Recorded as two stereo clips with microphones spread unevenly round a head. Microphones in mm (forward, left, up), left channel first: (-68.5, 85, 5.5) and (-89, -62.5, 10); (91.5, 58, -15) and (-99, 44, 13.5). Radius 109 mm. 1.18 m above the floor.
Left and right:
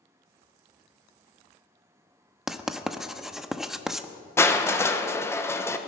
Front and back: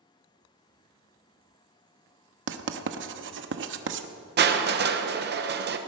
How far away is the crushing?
About 1.3 m.